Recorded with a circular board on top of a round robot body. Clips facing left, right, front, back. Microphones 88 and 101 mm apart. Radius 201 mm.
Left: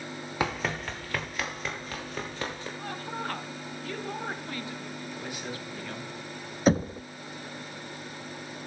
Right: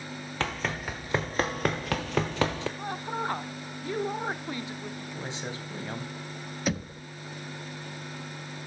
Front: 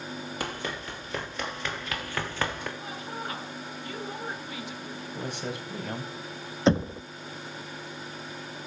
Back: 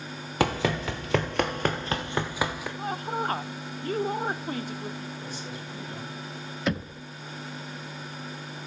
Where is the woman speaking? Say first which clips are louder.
Right 3 dB, back 7 dB; 155° right, 1.7 m.